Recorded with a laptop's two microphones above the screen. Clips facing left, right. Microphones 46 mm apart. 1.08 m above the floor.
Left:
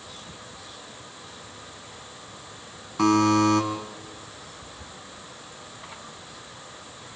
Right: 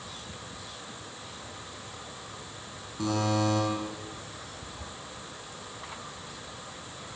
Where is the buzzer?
80° left, 6.5 m.